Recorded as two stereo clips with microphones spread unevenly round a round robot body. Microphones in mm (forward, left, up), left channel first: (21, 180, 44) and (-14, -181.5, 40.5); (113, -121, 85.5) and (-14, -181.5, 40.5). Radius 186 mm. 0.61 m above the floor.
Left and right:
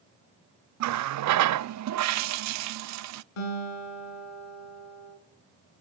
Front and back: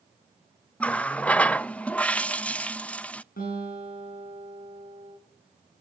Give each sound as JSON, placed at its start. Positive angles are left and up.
{"t": 0.8, "sound": "a running tap", "azimuth_deg": -75, "distance_m": 0.5}
{"t": 3.4, "sound": "a guitar", "azimuth_deg": 85, "distance_m": 6.5}